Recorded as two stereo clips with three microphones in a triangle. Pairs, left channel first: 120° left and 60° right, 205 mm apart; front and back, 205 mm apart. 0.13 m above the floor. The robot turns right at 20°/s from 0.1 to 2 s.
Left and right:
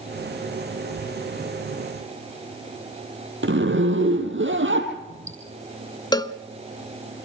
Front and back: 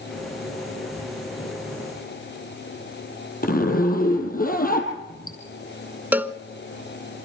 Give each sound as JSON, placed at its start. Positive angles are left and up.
{"t": 3.4, "sound": "a zipper", "azimuth_deg": -45, "distance_m": 3.0}
{"t": 6.1, "sound": "a cowbell", "azimuth_deg": 115, "distance_m": 0.8}